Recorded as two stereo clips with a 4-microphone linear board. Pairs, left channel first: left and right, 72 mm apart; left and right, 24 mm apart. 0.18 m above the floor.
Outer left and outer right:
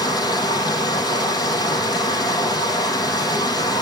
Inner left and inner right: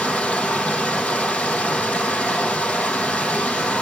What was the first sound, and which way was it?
Running water, 70° left (ahead or behind).